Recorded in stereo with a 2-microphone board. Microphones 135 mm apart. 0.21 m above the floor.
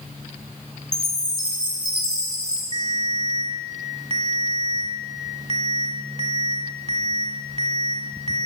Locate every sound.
0.9 s a chime: 30° left (ahead or behind), 1.9 m
2.7 s a ringtone: 45° right (ahead or behind), 1.0 m